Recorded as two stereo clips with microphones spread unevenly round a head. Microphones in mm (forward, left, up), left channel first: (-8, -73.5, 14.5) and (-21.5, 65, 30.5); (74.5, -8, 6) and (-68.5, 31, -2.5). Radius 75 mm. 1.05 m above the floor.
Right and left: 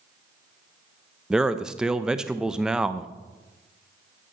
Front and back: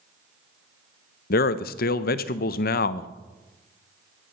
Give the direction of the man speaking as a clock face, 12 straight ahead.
12 o'clock.